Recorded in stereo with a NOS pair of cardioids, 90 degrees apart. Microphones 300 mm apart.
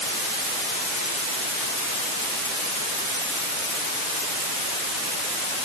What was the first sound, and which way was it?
Only background noise.